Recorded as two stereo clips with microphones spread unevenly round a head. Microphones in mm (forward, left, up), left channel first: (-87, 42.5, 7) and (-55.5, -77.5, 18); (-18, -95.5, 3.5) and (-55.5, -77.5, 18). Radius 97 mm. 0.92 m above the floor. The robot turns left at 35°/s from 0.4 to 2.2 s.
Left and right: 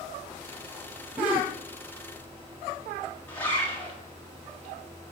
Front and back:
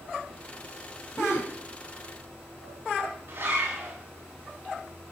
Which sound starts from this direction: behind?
A zipper, at 3.3 s.